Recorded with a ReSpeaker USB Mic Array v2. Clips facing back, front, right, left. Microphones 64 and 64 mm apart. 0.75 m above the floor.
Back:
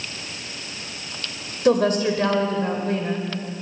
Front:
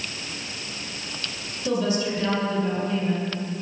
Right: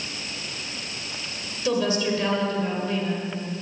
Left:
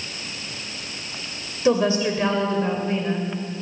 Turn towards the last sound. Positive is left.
turn(degrees=150)